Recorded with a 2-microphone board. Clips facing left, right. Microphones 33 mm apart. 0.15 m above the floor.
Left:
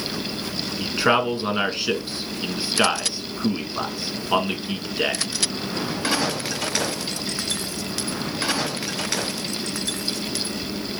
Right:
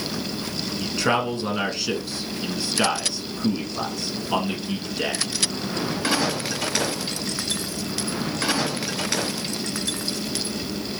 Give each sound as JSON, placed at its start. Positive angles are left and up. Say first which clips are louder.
{"t": 0.8, "sound": "a man speaking", "louder": "left 3 dB", "side_deg": 25, "distance_m": 1.2}